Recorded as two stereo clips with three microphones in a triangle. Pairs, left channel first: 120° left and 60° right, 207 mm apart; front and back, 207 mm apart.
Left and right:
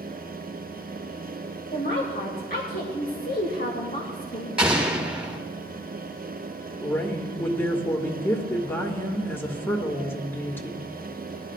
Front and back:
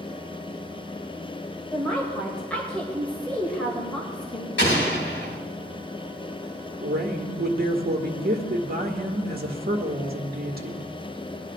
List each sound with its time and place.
1.7 s a woman speaking: 85° left, 2 m
4.6 s an explosion: 25° left, 3.5 m
6.8 s a woman speaking: 165° right, 1.5 m